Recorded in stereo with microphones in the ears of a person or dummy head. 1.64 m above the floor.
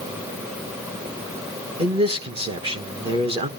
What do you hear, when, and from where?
1.8 s a man speaking: 30° right (ahead or behind), 1.4 m